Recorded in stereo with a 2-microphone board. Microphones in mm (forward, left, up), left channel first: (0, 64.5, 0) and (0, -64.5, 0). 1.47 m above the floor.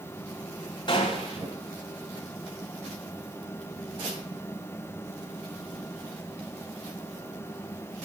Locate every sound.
0.9 s a gunshot: 35° left (ahead or behind), 2.5 m